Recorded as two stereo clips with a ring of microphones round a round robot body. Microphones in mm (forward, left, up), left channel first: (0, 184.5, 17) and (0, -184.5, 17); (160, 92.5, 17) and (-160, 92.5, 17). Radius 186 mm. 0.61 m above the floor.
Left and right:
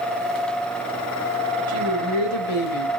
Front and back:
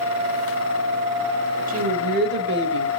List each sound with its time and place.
1.7 s a woman speaking: 115° left, 3.5 m; by 2.9 s 130° left, 3.5 m